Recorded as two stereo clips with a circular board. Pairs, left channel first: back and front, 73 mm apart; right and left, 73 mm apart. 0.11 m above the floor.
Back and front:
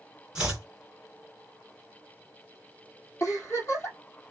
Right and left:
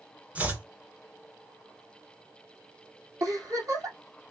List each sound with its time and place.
0.3 s chopping: 60° left, 1.6 m
3.2 s a giggle: 130° left, 2.5 m